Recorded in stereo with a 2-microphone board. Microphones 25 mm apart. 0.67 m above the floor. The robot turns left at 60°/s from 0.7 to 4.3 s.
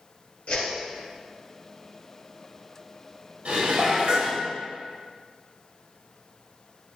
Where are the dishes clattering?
95° right, 2.0 m; by 4.4 s 145° right, 2.0 m.